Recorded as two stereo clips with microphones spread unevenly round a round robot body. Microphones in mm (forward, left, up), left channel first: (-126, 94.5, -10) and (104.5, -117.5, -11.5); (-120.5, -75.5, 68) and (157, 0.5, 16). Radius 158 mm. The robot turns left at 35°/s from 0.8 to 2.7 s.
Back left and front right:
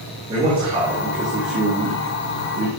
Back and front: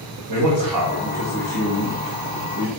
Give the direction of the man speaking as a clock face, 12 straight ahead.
11 o'clock.